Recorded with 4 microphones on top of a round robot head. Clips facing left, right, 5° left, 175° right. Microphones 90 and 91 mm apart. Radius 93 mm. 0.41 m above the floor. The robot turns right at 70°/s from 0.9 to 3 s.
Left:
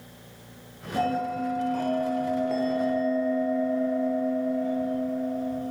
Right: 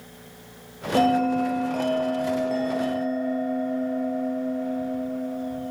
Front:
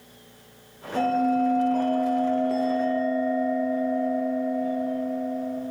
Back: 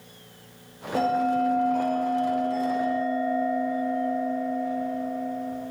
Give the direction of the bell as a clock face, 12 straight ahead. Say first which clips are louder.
Right 7 dB, front 1 dB; 4 o'clock.